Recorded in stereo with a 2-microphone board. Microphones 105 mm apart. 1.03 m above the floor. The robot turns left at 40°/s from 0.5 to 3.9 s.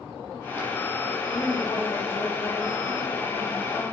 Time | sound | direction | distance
1.3 | a woman speaking | 130° left | 1.8 m